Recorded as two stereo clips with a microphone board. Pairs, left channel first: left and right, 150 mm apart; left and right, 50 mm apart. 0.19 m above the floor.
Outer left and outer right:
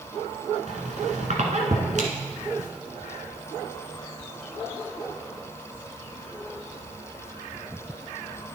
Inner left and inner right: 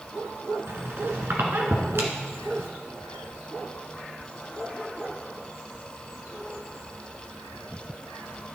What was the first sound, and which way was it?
A squeak, 55° right (ahead or behind).